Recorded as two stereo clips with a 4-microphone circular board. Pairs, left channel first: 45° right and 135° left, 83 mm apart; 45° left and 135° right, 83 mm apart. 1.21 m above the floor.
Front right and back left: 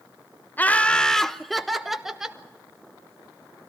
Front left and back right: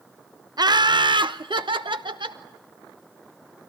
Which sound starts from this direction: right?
Laughter, at 0.6 s.